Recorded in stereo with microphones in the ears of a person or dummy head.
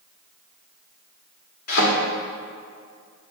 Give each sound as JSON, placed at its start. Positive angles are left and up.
{"t": 1.7, "sound": "a thud", "side_deg": 45, "distance_m": 1.7}